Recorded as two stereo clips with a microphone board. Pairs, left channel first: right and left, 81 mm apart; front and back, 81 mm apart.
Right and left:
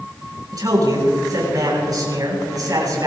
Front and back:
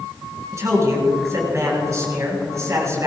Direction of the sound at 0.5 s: 130° left.